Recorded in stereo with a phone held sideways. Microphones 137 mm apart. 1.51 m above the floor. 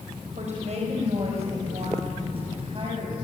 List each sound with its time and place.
0.4 s a woman speaking: 55° right (ahead or behind), 6 m; by 3.1 s 40° right (ahead or behind), 8.5 m